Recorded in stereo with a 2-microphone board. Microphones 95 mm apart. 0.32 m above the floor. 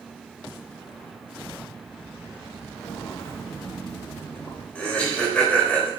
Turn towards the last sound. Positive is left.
turn(degrees=15)  # may be behind; listen again after turning